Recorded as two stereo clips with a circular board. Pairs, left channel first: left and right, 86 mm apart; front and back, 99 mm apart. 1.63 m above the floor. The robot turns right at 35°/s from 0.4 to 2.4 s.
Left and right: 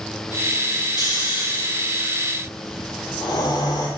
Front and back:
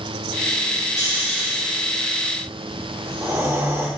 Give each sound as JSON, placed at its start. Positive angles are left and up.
{"t": 1.0, "sound": "snoring", "azimuth_deg": 65, "distance_m": 2.5}